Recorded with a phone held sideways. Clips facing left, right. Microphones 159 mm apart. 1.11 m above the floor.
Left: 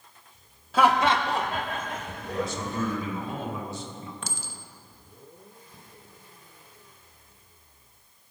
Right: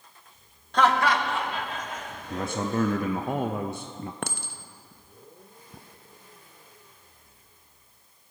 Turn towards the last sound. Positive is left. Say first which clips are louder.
# right 5 dB
turn(degrees=-60)  # may be behind; listen again after turning